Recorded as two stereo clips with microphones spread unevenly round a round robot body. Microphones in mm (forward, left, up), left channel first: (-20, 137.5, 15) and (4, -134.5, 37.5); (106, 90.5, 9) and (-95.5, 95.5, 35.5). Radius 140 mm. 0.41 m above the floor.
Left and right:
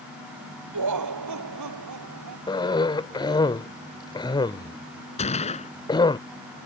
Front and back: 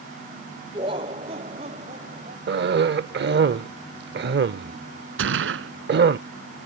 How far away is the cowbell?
No cowbell in this recording.